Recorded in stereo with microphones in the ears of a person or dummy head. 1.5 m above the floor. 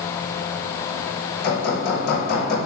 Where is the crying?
I don't hear crying.